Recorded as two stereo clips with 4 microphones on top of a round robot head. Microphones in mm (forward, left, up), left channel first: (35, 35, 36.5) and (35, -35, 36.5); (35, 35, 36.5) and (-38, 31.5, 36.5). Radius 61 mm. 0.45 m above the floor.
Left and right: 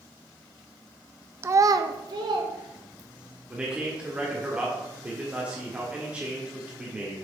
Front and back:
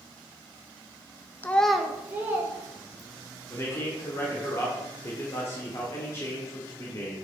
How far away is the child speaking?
About 0.5 m.